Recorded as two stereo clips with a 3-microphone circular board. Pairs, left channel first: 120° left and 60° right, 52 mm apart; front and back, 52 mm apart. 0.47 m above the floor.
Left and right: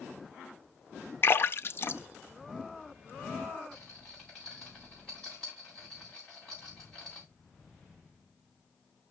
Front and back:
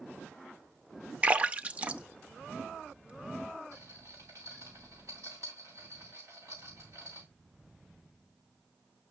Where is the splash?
125° left, 0.6 m.